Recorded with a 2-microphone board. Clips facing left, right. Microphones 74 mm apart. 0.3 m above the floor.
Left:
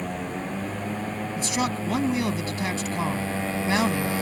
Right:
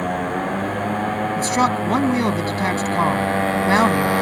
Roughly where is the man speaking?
Right.